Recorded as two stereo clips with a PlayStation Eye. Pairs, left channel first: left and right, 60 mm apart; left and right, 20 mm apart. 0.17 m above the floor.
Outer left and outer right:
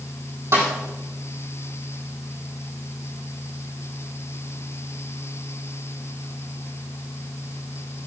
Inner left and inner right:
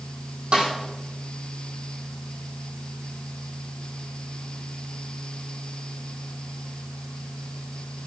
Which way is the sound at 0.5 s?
50° right (ahead or behind).